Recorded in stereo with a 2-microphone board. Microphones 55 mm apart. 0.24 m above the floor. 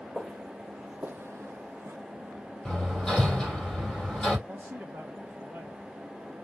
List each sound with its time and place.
0.1 s footsteps: centre (ahead or behind), 1.7 m; by 2.0 s 50° right (ahead or behind), 1.0 m
2.6 s hammering: 15° left (ahead or behind), 3 m
4.5 s a man speaking: 35° right (ahead or behind), 1.7 m